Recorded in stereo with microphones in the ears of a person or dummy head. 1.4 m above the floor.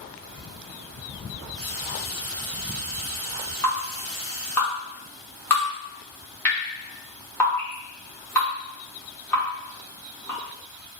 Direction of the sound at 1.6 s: 5° right (ahead or behind).